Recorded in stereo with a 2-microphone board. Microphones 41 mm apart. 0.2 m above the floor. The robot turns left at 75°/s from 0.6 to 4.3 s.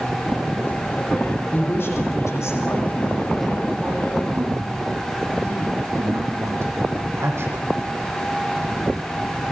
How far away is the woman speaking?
About 8 m.